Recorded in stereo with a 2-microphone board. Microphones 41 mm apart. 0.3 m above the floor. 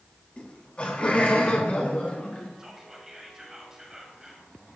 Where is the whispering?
15° right (ahead or behind), 1.8 m.